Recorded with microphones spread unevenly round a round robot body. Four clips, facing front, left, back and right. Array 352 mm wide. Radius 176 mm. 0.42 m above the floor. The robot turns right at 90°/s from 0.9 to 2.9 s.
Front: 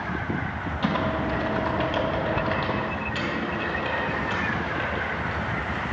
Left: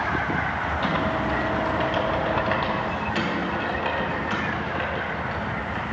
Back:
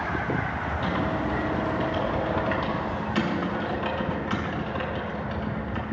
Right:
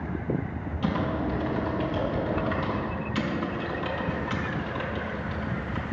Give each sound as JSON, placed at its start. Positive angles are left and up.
{"t": 0.8, "sound": "typing on a keyboard", "azimuth_deg": -55, "distance_m": 3.0}